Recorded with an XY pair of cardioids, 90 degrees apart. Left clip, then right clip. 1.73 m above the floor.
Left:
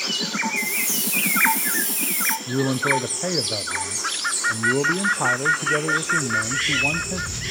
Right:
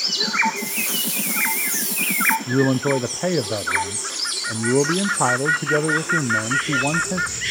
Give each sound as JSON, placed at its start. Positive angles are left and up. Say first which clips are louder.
{"t": 0.6, "sound": "a hiss", "louder": "left 1 dB", "azimuth_deg": 5, "distance_m": 1.5}
{"t": 2.5, "sound": "a man speaking", "louder": "right 2 dB", "azimuth_deg": -40, "distance_m": 0.5}